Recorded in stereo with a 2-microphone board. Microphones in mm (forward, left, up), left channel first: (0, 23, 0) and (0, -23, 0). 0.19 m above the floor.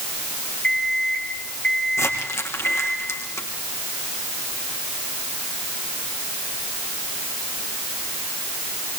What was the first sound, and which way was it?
An alarm clock, 20° left (ahead or behind).